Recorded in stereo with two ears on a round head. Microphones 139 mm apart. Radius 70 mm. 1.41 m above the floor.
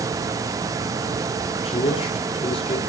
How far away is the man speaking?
About 3.5 m.